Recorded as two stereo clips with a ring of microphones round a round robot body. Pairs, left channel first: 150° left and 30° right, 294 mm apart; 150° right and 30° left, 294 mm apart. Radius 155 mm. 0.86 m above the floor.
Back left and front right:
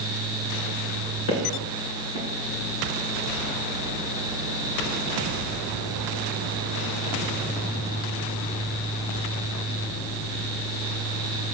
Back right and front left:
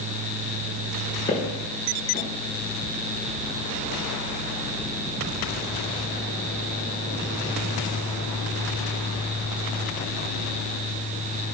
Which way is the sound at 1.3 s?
135° left.